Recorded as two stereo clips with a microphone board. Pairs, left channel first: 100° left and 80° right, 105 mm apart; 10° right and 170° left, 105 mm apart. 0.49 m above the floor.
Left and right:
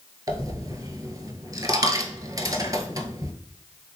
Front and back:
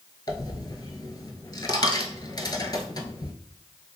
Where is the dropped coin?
35° right, 0.6 m.